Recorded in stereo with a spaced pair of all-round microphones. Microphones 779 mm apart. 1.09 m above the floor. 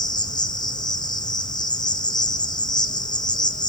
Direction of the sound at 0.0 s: 5° left (ahead or behind).